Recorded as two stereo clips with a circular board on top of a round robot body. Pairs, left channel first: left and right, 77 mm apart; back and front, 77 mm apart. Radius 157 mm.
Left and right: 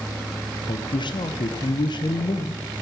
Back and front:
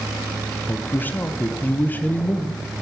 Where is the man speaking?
115° left, 1.0 m.